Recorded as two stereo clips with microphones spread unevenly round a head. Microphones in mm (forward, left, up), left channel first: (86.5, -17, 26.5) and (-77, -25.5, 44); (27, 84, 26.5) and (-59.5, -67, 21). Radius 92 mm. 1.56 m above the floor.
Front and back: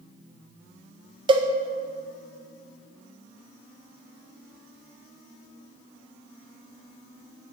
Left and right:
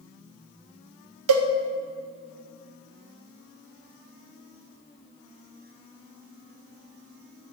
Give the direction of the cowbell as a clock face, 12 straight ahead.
4 o'clock.